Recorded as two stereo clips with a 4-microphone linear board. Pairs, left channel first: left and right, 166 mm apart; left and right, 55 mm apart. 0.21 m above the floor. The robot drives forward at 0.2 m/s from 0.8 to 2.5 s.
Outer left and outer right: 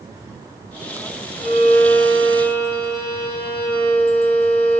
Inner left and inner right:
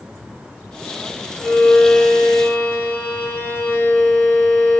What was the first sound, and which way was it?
A violin, 35° left (ahead or behind).